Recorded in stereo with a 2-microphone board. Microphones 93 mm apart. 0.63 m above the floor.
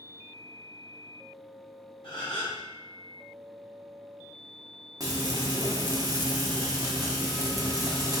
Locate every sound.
2.0 s a gasp: 65° left (ahead or behind), 1.9 m
5.0 s frying: 40° right (ahead or behind), 0.8 m